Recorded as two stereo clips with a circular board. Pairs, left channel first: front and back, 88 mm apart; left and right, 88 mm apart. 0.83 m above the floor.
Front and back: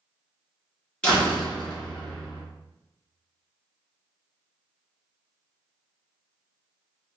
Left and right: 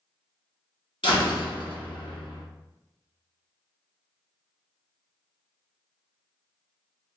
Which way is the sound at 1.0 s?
80° left.